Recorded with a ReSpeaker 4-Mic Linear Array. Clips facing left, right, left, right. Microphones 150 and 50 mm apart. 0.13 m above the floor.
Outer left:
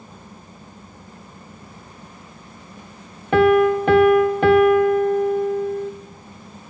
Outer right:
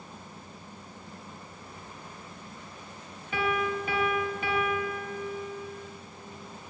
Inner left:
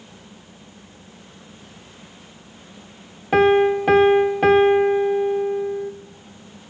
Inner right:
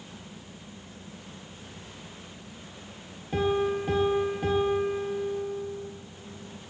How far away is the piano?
About 0.9 m.